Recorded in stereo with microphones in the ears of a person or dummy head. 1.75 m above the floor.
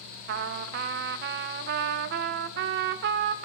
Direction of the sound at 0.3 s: 55° right (ahead or behind).